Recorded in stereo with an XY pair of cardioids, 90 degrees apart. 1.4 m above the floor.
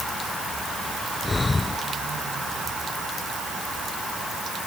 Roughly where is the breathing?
Ahead left.